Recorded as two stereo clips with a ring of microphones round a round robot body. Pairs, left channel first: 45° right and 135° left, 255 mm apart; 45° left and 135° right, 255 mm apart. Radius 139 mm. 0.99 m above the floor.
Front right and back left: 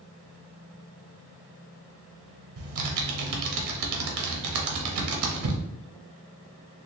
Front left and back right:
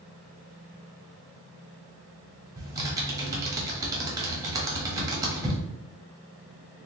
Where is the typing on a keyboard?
150° left, 0.6 m.